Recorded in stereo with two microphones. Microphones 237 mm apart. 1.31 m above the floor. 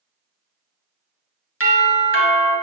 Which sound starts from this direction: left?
A doorbell, at 1.6 s.